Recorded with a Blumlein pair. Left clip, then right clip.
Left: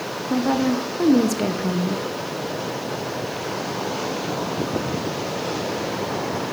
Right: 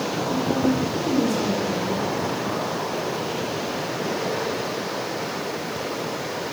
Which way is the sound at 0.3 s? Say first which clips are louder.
Left 3 dB; 30° left.